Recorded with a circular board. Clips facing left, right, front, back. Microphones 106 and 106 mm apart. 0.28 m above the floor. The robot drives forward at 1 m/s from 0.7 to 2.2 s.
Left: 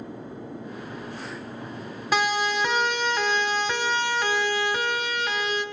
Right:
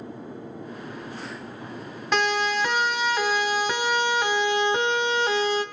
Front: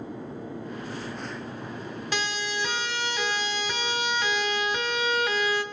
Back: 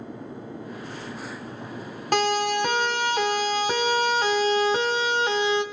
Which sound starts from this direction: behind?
A siren, at 2.1 s.